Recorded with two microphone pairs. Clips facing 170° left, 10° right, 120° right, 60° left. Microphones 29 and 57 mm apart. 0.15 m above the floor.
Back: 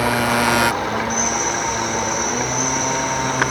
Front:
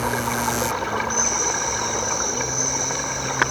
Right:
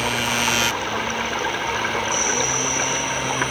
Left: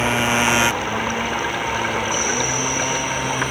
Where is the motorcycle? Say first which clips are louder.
Back 6 dB, left 4 dB; 125° left; by 3.5 s 145° left.